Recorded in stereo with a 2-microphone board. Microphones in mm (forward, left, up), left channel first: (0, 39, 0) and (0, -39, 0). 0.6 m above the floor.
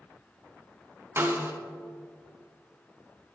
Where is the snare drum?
35° right (ahead or behind), 0.5 m.